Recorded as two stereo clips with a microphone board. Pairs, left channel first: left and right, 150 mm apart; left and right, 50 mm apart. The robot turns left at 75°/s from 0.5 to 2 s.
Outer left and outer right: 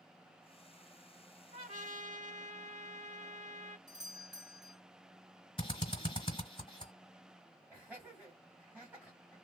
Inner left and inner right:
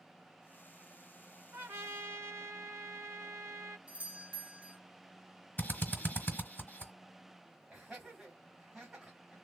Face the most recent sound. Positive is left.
turn(degrees=-10)  # may be behind; listen again after turning